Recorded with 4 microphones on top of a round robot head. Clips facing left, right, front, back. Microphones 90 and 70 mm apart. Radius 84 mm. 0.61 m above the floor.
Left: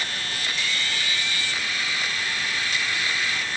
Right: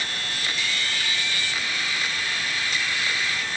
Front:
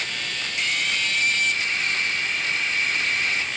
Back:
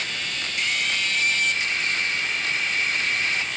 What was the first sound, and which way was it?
Only background noise.